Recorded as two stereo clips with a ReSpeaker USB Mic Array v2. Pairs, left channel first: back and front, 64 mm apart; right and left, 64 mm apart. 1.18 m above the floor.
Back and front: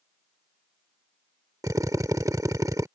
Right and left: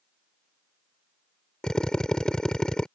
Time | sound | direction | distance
1.6 | a drill | 10° right | ?